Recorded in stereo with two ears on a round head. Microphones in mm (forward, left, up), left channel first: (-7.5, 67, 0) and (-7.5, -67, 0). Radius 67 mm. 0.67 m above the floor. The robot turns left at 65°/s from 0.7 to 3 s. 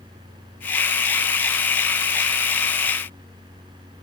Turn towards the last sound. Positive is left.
No sound to turn to.